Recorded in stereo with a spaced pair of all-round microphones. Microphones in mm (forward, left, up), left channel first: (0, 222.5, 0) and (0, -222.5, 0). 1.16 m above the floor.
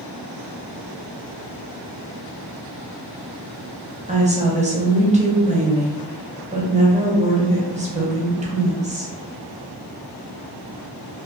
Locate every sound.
4.1 s a woman speaking: 15° right (ahead or behind), 0.7 m